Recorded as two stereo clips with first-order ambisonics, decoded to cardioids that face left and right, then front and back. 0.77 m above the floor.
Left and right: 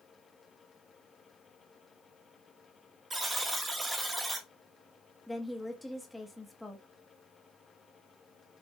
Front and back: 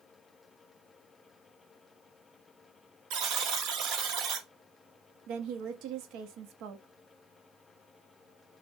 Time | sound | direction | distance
3.1 | a buzzer | 165° right | 1.0 m
5.3 | a woman speaking | straight behind | 0.7 m